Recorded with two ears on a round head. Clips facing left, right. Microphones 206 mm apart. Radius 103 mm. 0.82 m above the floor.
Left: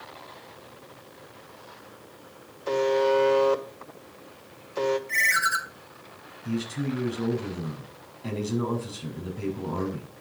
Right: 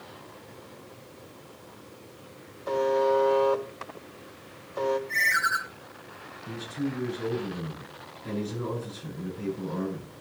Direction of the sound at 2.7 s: 40° left (ahead or behind).